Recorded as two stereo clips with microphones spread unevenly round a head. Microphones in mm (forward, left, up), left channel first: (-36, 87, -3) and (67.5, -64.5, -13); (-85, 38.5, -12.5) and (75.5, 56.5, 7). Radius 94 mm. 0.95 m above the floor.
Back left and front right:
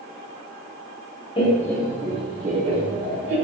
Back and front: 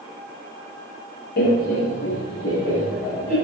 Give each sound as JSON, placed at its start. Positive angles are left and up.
{"t": 1.4, "sound": "laughter", "azimuth_deg": -170, "distance_m": 0.9}